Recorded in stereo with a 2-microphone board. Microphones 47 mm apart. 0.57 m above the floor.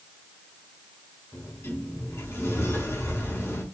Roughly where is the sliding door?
Left.